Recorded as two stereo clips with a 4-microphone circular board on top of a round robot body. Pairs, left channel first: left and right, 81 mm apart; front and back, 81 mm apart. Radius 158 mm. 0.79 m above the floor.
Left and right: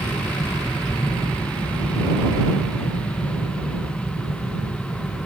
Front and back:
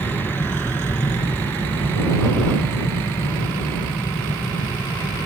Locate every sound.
0.0 s an aircraft: 30° left